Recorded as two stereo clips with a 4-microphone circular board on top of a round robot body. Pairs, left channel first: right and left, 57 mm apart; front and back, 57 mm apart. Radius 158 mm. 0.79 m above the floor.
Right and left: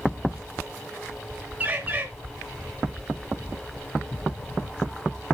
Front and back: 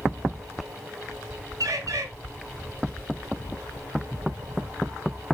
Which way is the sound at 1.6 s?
155° left.